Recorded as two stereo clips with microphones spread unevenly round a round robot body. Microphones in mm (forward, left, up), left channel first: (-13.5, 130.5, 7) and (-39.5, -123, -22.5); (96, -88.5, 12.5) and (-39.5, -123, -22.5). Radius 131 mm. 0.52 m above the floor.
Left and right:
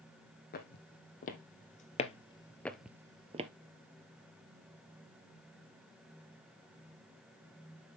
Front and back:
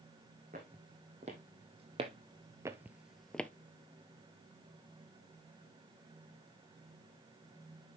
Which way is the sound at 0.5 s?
135° left.